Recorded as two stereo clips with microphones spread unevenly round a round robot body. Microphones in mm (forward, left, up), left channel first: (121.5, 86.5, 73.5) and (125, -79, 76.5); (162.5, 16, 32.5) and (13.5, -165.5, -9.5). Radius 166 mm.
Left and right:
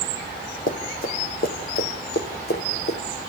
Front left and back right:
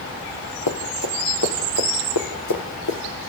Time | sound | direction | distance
0.7 | running footsteps | 60° left | 3.5 m